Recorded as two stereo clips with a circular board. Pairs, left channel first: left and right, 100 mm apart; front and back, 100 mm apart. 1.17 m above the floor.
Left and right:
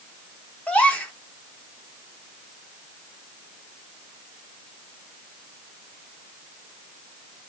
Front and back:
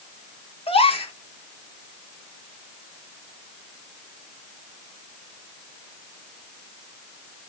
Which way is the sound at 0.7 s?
15° left.